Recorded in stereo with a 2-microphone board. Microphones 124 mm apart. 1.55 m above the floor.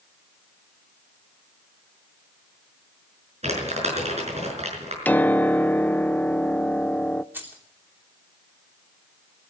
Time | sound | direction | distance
3.4 | crumpling | 60° right (ahead or behind) | 6 m
5.0 | a piano | 15° left (ahead or behind) | 0.5 m
7.3 | keys jangling | 15° right (ahead or behind) | 3.5 m